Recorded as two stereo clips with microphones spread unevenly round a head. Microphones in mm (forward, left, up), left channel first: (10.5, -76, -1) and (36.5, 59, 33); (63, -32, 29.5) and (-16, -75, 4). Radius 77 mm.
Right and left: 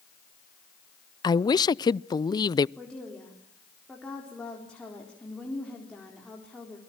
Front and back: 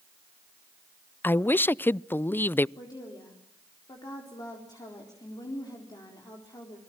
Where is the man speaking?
45° right, 0.5 m.